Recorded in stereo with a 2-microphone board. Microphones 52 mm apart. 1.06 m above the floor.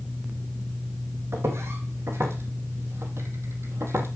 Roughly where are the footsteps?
Right.